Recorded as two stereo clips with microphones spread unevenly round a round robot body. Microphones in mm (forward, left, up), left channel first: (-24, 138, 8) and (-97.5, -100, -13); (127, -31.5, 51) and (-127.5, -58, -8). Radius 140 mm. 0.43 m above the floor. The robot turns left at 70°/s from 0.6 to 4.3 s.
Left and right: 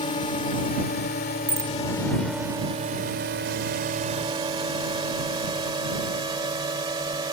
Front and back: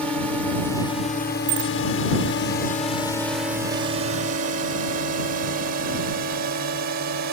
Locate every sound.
0.0 s a drone: 110° left; by 7.3 s 175° right
1.5 s a bicycle bell: straight behind; by 1.7 s 160° left